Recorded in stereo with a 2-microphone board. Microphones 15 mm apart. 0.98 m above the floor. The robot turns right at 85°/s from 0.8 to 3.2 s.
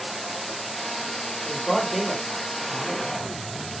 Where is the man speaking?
145° left, 1.6 m; by 3.4 s 70° right, 1.6 m.